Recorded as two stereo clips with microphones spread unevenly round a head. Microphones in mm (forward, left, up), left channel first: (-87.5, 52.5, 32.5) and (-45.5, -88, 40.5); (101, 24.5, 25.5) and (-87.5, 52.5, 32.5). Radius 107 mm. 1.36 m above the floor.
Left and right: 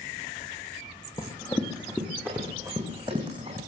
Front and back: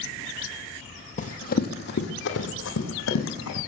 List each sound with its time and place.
1.2 s running footsteps: 35° left, 2 m; by 3.6 s 10° right, 4.5 m